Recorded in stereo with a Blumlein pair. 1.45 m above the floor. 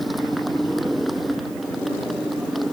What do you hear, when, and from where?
0.0 s a motorcycle: straight ahead